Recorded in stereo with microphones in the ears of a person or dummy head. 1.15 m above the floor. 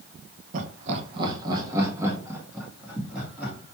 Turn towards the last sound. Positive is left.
turn(degrees=-5)  # may be behind; listen again after turning